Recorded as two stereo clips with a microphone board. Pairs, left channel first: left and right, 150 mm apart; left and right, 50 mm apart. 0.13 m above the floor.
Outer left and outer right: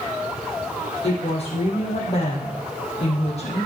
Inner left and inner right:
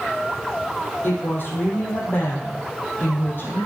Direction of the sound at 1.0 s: 45° left (ahead or behind).